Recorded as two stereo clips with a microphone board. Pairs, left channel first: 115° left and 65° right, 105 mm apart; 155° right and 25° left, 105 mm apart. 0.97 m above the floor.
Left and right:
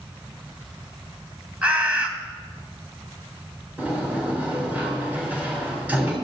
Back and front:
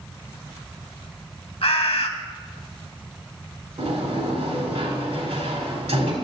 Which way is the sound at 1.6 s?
145° right.